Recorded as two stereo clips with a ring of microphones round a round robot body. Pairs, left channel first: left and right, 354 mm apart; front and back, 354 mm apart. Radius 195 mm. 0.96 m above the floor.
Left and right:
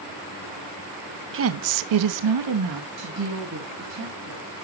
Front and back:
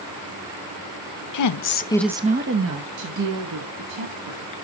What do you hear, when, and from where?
1.3 s a woman speaking: 35° right, 0.8 m; by 4.4 s 155° right, 2.5 m